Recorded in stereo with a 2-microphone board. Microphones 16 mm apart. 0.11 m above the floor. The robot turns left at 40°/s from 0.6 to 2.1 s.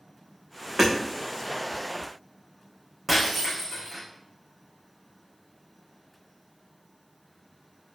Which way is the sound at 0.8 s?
40° right (ahead or behind).